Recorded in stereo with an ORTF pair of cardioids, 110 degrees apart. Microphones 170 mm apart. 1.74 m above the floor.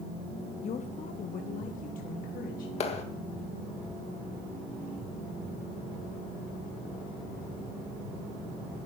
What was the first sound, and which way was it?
A woman speaking, 40° left.